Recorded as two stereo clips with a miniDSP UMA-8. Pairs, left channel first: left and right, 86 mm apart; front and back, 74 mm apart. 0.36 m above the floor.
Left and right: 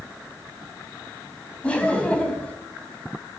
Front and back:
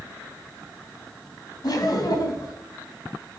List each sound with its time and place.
1.6 s laughter: 15° left, 2 m